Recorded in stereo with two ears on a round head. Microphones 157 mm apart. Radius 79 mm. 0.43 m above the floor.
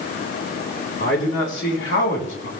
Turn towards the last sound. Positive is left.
turn(degrees=75)  # may be behind; listen again after turning